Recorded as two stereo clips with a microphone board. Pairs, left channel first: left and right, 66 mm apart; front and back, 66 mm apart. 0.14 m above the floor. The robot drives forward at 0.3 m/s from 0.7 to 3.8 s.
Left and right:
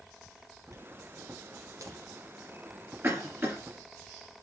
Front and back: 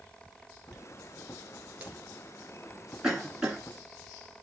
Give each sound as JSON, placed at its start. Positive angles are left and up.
{"t": 0.7, "sound": "a dropped coin", "azimuth_deg": -95, "distance_m": 1.3}
{"t": 3.0, "sound": "a cough", "azimuth_deg": -105, "distance_m": 2.0}